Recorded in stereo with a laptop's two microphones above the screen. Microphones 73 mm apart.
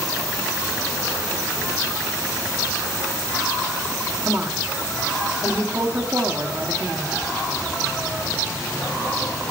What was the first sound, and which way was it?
A woman speaking, 40° right (ahead or behind).